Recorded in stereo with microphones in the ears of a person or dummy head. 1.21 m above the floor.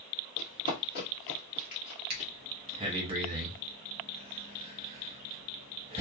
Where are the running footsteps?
40° left (ahead or behind), 1.6 m; by 2.3 s 25° left (ahead or behind), 1.4 m.